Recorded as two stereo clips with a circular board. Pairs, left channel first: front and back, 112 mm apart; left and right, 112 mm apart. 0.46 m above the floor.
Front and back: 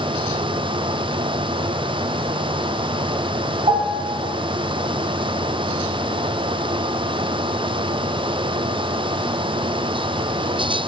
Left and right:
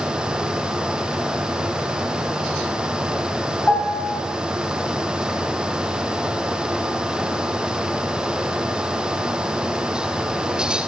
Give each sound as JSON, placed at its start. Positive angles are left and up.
{"t": 3.7, "sound": "a piano", "azimuth_deg": 165, "distance_m": 0.7}